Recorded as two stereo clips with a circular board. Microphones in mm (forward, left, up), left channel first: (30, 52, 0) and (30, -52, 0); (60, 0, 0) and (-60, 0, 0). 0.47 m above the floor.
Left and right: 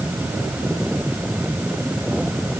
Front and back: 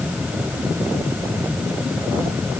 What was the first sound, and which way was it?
Only background noise.